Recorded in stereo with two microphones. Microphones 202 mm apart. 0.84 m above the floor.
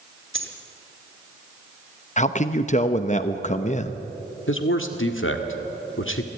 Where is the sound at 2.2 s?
35° left (ahead or behind), 0.8 m.